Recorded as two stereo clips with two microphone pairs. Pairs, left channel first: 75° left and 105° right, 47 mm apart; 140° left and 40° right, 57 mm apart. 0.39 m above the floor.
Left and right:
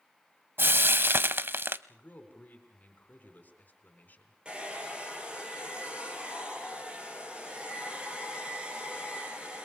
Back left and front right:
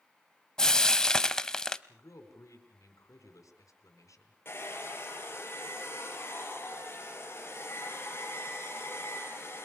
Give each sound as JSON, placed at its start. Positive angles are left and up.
{"t": 0.6, "sound": "frying", "azimuth_deg": -145, "distance_m": 0.8}
{"t": 1.9, "sound": "a man speaking", "azimuth_deg": 125, "distance_m": 5.0}
{"t": 4.5, "sound": "a hair dryer", "azimuth_deg": -175, "distance_m": 7.0}